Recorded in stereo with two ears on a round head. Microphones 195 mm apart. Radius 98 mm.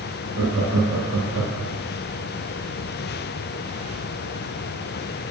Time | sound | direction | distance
0.3 | laughter | 60° right (ahead or behind) | 1.1 m